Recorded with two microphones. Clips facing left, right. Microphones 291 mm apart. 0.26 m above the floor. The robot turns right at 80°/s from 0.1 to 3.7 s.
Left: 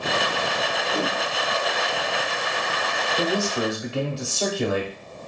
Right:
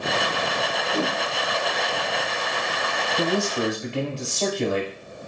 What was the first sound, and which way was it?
A whoosh, 5° right (ahead or behind).